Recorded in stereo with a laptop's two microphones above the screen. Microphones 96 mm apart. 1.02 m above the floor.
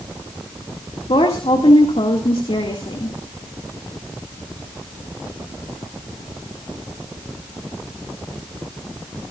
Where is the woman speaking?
80° left, 2 m.